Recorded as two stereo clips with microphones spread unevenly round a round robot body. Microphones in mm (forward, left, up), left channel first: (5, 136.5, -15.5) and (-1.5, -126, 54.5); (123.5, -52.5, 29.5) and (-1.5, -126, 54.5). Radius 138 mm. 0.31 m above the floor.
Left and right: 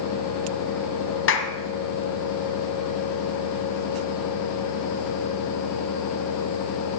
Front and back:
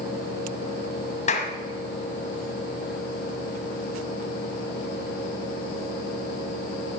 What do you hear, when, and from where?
1.3 s a clap: 65° left, 1.6 m